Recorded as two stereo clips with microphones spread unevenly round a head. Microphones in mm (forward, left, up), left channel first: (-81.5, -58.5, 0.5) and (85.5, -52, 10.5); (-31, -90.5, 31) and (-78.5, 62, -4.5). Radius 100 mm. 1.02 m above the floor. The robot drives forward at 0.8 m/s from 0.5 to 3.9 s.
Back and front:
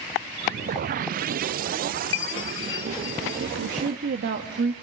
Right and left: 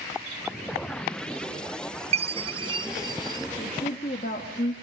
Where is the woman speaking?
15° right, 1.5 m; by 4.7 s 20° right, 1.3 m.